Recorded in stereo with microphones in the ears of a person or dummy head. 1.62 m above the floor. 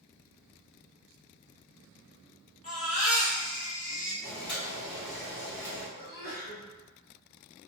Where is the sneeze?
60° left (ahead or behind), 1.6 m.